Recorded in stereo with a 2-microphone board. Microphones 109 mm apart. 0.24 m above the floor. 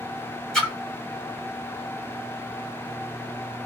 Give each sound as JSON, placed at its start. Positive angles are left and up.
{"t": 0.5, "sound": "a splash", "side_deg": 10, "distance_m": 1.5}